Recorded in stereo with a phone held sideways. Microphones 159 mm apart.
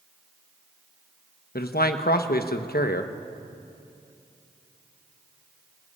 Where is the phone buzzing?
No phone buzzing in this recording.